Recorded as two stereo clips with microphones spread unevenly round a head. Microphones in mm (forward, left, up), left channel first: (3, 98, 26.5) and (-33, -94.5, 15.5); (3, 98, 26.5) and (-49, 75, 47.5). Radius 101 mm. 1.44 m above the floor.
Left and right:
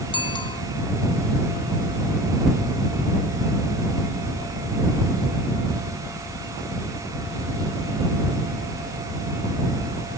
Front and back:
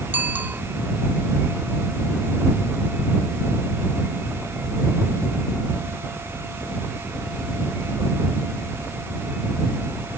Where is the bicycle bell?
145° left.